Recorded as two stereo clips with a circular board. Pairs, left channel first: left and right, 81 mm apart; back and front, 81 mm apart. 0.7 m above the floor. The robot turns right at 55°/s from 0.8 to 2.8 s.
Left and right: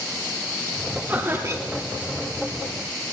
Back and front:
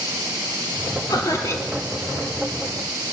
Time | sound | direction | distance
1.1 | laughter | 160° right | 1.5 m